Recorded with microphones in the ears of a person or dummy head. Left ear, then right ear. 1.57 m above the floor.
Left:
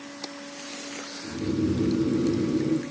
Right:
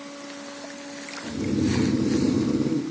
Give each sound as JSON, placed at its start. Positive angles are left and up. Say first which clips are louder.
{"t": 1.2, "sound": "snoring", "louder": "right 1 dB", "side_deg": -70, "distance_m": 1.5}